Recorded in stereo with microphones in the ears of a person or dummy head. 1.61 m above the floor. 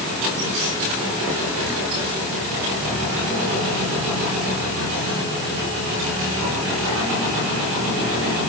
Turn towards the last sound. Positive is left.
No sound to turn to.